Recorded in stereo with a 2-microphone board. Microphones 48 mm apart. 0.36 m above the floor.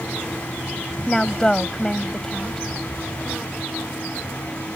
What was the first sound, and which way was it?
A woman speaking, 10° left (ahead or behind).